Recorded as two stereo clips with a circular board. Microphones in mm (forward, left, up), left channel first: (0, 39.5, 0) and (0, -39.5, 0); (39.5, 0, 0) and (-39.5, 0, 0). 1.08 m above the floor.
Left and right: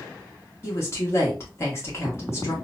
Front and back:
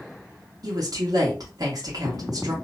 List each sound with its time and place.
0.6 s a woman speaking: 145° left, 1.2 m